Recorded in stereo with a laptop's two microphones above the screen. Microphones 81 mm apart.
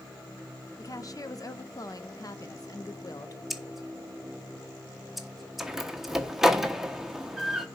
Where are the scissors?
Centre (ahead or behind), 0.9 m.